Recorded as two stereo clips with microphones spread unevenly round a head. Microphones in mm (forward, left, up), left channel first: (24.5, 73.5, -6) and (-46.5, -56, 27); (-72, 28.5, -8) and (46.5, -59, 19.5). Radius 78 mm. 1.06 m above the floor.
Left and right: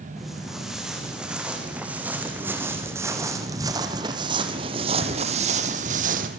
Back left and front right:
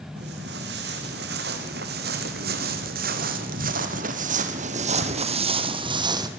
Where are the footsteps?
30° right, 5.5 m; by 6.3 s 95° right, 2.5 m.